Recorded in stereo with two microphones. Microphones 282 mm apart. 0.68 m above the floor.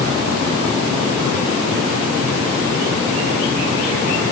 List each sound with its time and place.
Only background noise.